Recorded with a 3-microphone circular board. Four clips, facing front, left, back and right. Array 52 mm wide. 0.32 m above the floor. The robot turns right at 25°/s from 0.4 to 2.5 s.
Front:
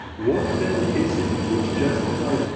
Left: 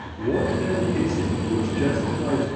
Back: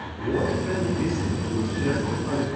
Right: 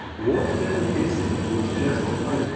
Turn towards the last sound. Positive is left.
turn(degrees=50)